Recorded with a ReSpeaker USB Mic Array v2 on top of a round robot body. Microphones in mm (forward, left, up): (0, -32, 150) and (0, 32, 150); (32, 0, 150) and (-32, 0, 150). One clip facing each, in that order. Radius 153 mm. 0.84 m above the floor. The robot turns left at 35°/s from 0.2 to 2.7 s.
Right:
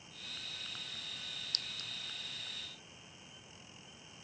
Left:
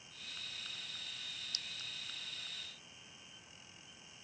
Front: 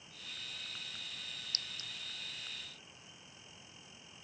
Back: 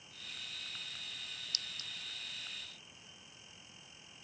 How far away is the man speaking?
I don't hear a man speaking.